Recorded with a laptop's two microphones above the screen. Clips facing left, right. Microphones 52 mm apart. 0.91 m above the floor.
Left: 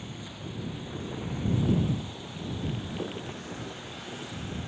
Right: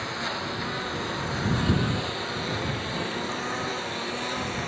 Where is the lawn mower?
85° right.